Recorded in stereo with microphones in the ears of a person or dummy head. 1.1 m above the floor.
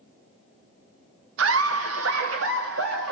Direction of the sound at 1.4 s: 85° right.